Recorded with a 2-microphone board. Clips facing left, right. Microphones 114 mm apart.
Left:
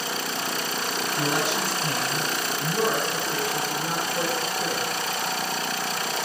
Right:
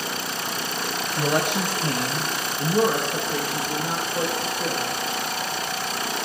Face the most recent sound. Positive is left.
turn(degrees=-20)  # may be behind; listen again after turning